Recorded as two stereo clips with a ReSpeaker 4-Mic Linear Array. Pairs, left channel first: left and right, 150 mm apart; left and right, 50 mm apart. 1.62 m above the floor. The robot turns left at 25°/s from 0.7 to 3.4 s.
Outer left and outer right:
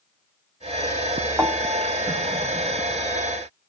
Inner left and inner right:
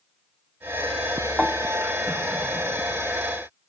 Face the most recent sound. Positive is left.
turn(degrees=-65)